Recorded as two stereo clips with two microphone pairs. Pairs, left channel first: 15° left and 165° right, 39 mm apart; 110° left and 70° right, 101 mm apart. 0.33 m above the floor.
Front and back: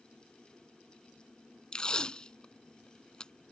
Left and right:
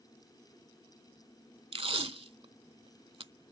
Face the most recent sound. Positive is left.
turn(degrees=-55)